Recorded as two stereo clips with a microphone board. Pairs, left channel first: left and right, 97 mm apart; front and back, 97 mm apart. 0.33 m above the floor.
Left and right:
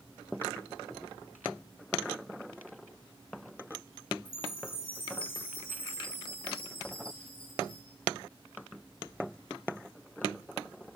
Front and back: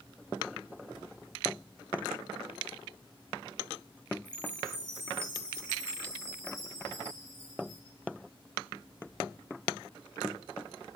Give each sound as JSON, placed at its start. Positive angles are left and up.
{"t": 4.2, "sound": "a chime", "azimuth_deg": 110, "distance_m": 5.0}